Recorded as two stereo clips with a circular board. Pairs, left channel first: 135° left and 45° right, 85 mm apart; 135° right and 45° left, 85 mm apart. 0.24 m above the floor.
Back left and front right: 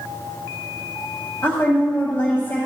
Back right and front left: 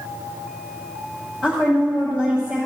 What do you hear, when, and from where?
1.4 s a woman speaking: 105° left, 1.4 m